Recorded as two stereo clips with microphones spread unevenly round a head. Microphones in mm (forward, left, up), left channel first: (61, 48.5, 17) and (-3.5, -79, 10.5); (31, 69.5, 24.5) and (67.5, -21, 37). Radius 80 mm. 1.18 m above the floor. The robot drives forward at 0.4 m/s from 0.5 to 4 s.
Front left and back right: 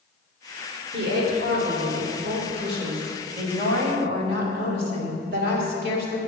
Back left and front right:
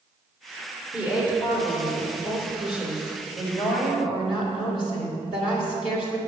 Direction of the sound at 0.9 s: 145° right.